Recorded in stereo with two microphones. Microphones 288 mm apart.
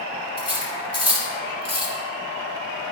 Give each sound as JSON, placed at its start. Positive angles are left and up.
{"t": 0.4, "sound": "cutlery clinking", "side_deg": -60, "distance_m": 2.5}